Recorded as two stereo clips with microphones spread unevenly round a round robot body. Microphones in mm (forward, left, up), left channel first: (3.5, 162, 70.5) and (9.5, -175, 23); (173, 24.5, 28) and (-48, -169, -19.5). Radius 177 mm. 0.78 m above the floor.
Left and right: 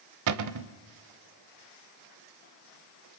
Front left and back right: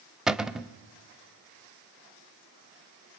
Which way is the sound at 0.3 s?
45° right.